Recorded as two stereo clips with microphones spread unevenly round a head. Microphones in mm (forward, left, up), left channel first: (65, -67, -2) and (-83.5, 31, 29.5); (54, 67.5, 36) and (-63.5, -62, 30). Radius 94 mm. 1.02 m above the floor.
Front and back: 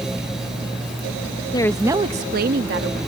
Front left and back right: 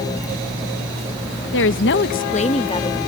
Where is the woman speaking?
30° left; by 3.0 s 115° left.